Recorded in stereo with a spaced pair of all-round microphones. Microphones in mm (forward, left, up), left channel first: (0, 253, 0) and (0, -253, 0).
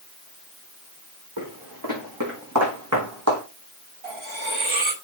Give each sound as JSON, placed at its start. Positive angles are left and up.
{"t": 1.4, "sound": "footsteps", "side_deg": -40, "distance_m": 5.0}
{"t": 4.0, "sound": "cutlery clinking", "side_deg": -65, "distance_m": 2.0}